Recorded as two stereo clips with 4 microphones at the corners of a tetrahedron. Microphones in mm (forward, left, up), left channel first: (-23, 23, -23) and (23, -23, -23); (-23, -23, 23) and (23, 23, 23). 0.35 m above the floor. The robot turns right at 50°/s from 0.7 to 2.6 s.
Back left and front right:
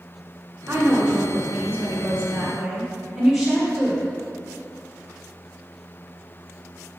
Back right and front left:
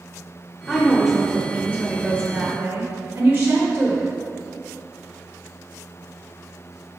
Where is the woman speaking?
60° right, 1.4 m; by 4.1 s 35° left, 1.4 m.